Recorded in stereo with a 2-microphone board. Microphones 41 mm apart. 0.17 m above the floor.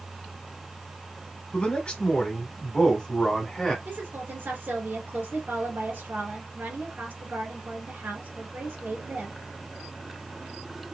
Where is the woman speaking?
55° right (ahead or behind), 2 m.